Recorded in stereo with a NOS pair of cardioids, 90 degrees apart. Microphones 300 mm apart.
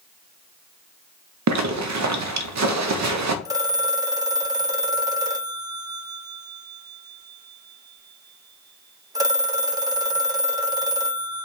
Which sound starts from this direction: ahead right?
A zipper, at 1.5 s.